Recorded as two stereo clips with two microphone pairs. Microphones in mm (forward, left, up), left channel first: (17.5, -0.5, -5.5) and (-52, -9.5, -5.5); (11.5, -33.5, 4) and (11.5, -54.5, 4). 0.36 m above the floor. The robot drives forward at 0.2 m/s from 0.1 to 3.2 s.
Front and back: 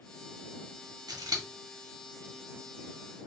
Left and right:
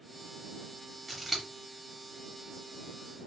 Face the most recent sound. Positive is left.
turn(degrees=-175)